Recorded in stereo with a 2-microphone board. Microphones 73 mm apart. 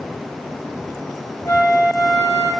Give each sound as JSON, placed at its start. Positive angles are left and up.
{"t": 1.4, "sound": "a flute", "side_deg": 30, "distance_m": 1.3}